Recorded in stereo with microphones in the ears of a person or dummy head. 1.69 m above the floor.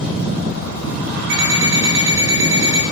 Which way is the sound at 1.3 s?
70° right (ahead or behind).